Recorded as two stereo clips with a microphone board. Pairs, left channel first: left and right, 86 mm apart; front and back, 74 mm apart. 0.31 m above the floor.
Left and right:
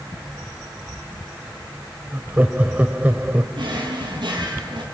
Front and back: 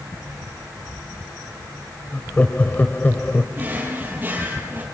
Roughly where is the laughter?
Ahead right.